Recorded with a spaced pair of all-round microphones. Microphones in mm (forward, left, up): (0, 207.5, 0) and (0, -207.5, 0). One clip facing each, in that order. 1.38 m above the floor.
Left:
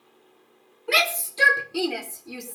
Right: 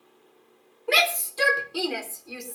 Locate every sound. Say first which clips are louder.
0.9 s a shout: right 1 dB; 30° left (ahead or behind), 4 m; by 2.5 s 55° left (ahead or behind), 4 m